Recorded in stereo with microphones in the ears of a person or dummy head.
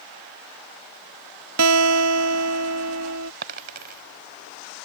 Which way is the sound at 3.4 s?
50° right (ahead or behind).